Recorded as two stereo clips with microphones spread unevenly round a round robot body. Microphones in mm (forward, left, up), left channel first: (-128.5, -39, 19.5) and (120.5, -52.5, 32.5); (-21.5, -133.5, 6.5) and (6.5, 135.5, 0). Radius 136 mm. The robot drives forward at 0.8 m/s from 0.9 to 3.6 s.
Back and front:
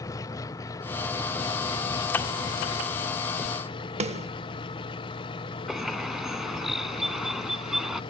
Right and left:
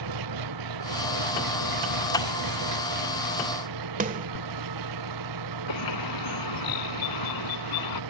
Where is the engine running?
100° left; by 8.1 s 105° left.